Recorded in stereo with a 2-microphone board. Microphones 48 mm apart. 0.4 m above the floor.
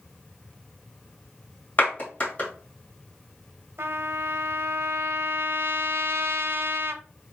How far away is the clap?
About 2 m.